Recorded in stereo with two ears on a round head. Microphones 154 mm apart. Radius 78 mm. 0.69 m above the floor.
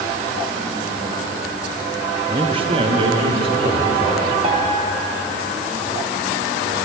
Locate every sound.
2.3 s a man speaking: 25° right (ahead or behind), 0.5 m; by 4.3 s 30° right (ahead or behind), 2 m
4.4 s a piano: 30° right (ahead or behind), 0.8 m